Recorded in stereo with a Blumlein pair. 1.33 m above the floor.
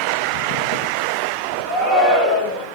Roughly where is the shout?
Ahead.